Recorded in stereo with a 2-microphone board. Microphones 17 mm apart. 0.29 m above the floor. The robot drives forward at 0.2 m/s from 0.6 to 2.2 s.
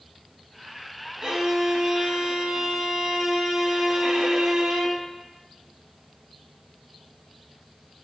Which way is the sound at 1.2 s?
55° right (ahead or behind).